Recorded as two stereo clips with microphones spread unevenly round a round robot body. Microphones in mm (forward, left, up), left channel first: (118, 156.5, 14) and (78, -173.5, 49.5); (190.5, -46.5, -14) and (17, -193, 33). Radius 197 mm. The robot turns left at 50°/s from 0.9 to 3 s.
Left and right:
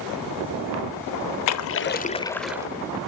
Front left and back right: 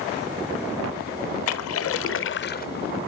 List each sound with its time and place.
1.5 s a splash: 45° left, 0.5 m; by 2.7 s 15° right, 0.5 m